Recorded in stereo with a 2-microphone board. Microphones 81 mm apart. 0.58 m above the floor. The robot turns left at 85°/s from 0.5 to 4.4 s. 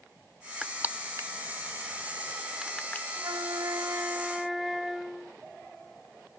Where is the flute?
70° right; by 5.4 s straight behind.